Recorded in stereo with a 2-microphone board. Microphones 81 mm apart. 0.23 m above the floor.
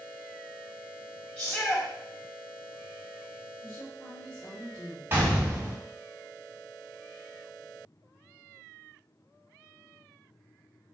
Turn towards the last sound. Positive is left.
turn(degrees=-30)  # may be behind; listen again after turning